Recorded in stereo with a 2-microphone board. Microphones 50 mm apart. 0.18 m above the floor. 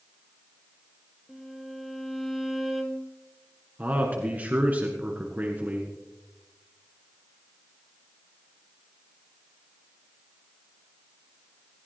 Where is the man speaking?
35° right (ahead or behind), 1.7 m.